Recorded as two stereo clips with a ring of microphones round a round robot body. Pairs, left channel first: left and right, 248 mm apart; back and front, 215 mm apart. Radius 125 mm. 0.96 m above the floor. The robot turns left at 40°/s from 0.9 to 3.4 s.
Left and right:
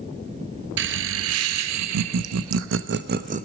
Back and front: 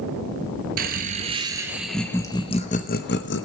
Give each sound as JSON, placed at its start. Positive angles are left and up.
{"t": 0.8, "sound": "laughter", "azimuth_deg": -50, "distance_m": 0.6}